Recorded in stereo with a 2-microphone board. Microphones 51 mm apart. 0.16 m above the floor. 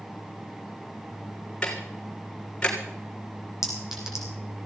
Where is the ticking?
20° left (ahead or behind), 2.5 m.